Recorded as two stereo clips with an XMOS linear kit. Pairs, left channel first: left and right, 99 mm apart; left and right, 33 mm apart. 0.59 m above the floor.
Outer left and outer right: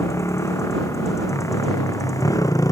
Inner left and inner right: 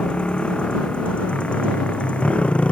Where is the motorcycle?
30° left (ahead or behind); by 2.7 s 35° left (ahead or behind).